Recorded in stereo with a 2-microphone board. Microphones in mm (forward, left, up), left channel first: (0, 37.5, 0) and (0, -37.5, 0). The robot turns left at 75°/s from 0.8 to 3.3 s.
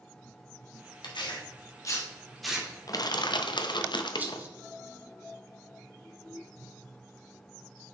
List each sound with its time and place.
1.0 s tearing paper: 75° left (ahead or behind), 1.4 m; by 2.7 s 15° right (ahead or behind), 1.4 m
2.9 s crushing: 130° left, 0.6 m; by 4.4 s 95° left, 0.6 m
4.2 s a rattle: 25° right (ahead or behind), 0.9 m